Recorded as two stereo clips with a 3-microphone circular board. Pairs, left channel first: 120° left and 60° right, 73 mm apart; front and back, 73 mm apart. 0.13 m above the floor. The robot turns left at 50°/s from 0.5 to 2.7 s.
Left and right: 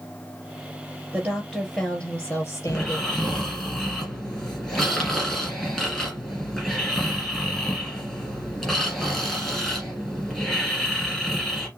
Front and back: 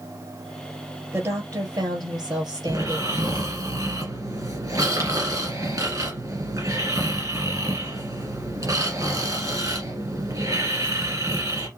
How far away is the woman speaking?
About 3 m.